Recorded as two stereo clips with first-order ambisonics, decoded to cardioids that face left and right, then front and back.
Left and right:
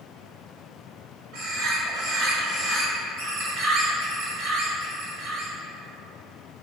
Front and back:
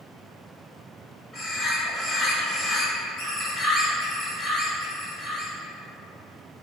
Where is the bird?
65° right, 1.2 m.